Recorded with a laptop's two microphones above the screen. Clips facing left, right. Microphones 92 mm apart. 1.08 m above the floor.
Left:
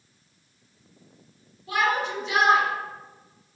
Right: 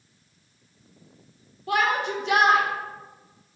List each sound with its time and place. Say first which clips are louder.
1.7 s a shout: right 1 dB; 65° right (ahead or behind), 2.5 m